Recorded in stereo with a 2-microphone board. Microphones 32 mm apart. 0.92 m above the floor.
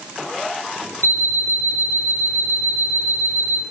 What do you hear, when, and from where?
1.0 s an alarm clock: 70° left (ahead or behind), 2 m